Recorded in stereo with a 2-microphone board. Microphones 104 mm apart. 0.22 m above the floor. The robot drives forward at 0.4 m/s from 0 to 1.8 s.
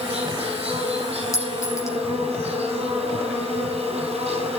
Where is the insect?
80° right, 6 m.